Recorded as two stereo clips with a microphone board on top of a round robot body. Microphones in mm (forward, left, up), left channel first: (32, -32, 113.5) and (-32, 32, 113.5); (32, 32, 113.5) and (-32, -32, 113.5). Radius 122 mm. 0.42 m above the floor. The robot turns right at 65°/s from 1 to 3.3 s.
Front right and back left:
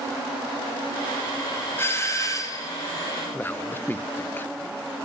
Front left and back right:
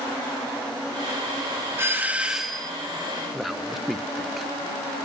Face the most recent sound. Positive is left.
turn(degrees=-45)